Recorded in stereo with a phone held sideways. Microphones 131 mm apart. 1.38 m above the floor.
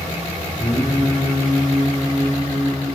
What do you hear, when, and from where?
0.6 s singing: 25° left (ahead or behind), 2.5 m